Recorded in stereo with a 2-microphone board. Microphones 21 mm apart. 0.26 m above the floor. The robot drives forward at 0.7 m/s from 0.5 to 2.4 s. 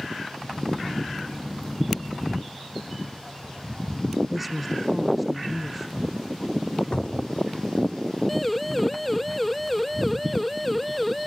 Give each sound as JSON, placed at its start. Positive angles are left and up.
{"t": 4.3, "sound": "a woman speaking", "side_deg": 0}
{"t": 6.9, "sound": "a cupboard door", "side_deg": 50}
{"t": 8.3, "sound": "a siren", "side_deg": 5}